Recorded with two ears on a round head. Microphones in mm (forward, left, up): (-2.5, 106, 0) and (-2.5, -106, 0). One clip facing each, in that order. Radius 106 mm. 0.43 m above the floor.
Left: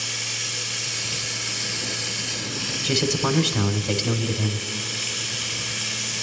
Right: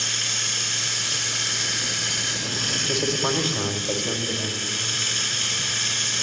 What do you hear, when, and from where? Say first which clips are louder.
0.0 s running water: even; 80° right, 3.5 m
2.8 s a man speaking: left 2 dB; 30° left (ahead or behind), 1.6 m